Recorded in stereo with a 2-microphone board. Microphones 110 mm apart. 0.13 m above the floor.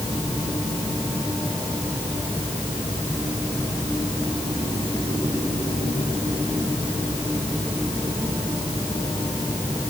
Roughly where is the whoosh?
I don't hear a whoosh.